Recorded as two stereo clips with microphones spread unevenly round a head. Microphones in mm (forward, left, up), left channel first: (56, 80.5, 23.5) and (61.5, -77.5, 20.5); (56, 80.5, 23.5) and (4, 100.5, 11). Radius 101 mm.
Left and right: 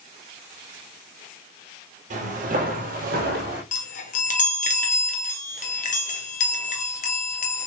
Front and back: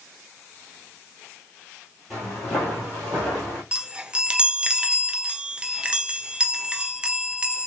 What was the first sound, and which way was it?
Footsteps, 95° right.